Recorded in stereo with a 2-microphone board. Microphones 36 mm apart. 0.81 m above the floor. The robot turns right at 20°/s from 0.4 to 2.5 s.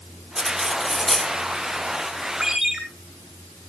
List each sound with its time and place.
0.4 s cutlery clinking: 15° right (ahead or behind), 1.3 m; by 1.3 s 5° left (ahead or behind), 1.3 m
2.4 s a ringtone: 10° right (ahead or behind), 7 m; by 2.8 s 15° right (ahead or behind), 7 m